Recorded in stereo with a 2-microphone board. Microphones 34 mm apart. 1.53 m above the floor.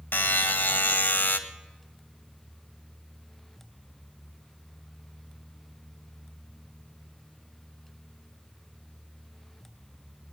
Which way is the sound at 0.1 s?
80° left.